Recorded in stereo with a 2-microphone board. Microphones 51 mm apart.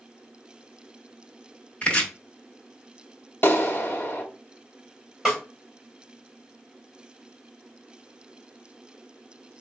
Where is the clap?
45° left (ahead or behind), 0.9 m.